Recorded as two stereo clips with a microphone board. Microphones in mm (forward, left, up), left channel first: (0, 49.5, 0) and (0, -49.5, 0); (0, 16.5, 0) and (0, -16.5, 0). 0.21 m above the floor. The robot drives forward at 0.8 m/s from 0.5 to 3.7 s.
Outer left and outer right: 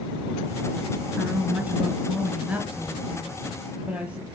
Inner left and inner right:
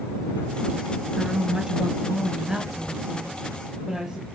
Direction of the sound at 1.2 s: 20° right (ahead or behind).